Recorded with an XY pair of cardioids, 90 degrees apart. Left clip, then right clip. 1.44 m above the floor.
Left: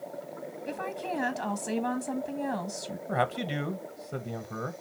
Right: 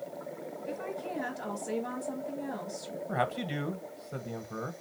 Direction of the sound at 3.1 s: 20° left.